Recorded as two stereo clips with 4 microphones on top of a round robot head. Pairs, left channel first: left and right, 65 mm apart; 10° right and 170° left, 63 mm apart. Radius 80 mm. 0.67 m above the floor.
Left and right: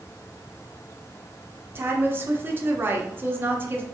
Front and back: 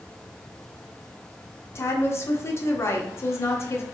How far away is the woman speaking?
About 1.0 m.